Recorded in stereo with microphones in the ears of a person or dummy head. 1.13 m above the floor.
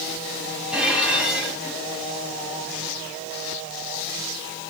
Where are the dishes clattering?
5° right (ahead or behind), 6.5 m.